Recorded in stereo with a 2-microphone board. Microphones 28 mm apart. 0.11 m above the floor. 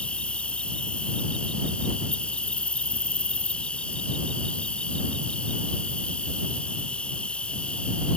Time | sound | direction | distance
0.0 | an insect | 40° left (ahead or behind) | ?